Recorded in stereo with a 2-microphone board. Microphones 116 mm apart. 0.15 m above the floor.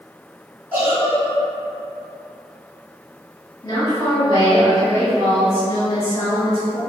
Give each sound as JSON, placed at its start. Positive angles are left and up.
{"t": 0.7, "sound": "a giggle", "side_deg": -15, "distance_m": 1.3}
{"t": 3.6, "sound": "a woman speaking", "side_deg": 35, "distance_m": 2.0}